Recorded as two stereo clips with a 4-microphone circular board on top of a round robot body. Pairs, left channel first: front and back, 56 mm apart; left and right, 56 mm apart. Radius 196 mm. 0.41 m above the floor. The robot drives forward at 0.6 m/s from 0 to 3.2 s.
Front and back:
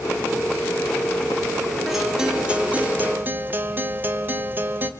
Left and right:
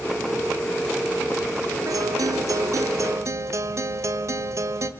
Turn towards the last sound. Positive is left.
turn(degrees=-125)